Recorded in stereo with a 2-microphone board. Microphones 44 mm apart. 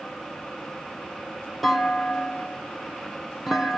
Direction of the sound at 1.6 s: 5° right (ahead or behind).